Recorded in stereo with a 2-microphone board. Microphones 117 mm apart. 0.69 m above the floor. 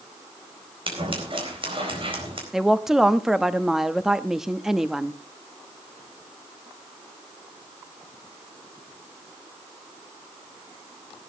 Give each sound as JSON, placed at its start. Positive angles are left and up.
{"t": 0.9, "sound": "scissors", "side_deg": -50, "distance_m": 4.0}
{"t": 2.5, "sound": "a woman speaking", "side_deg": -5, "distance_m": 0.8}